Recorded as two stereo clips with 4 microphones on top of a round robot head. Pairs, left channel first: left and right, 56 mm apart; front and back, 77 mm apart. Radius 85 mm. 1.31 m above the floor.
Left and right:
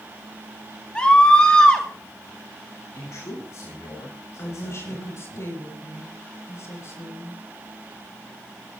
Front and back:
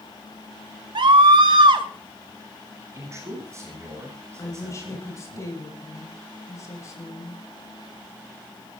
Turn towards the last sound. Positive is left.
turn(degrees=55)